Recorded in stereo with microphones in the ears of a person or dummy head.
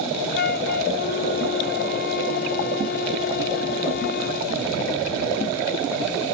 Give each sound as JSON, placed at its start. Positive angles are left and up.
{"t": 0.3, "sound": "a flute", "side_deg": 55, "distance_m": 0.7}